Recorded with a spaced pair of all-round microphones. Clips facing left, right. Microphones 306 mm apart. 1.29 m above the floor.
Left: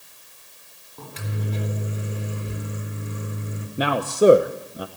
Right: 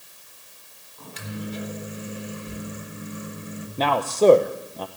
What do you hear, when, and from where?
1.0 s a microwave: 70° left (ahead or behind), 4 m
3.8 s a man speaking: 15° left (ahead or behind), 0.8 m